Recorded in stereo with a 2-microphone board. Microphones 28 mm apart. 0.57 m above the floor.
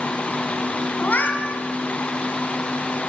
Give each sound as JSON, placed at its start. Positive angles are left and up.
{"t": 1.0, "sound": "a cat meowing", "side_deg": 85, "distance_m": 2.0}